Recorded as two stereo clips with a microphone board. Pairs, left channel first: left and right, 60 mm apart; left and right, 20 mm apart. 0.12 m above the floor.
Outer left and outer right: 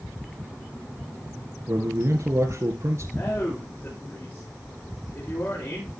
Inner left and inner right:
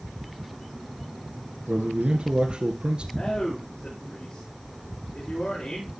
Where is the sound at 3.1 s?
40° left (ahead or behind), 10 m.